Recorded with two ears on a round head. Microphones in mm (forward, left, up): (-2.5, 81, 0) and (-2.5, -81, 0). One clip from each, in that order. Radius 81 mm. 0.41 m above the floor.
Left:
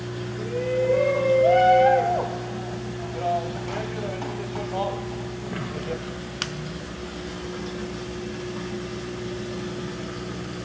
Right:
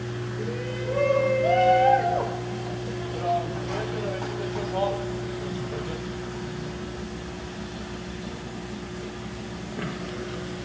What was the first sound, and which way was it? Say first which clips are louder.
A shout: left 10 dB; 15° left (ahead or behind).